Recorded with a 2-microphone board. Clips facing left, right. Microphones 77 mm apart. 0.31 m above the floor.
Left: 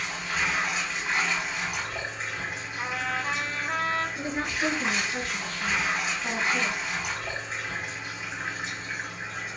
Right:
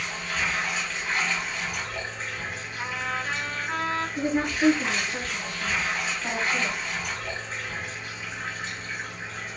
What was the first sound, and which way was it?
Running water, 10° left (ahead or behind).